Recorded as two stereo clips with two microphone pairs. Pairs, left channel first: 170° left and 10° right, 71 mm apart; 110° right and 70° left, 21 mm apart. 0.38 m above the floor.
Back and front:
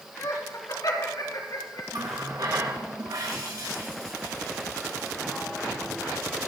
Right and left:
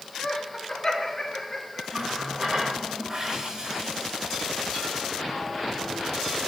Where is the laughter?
Straight behind, 3.5 m; by 1.8 s 165° left, 4.5 m.